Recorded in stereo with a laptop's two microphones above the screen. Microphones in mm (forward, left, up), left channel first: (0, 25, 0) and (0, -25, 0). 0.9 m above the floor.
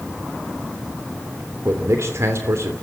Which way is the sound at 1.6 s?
65° right (ahead or behind).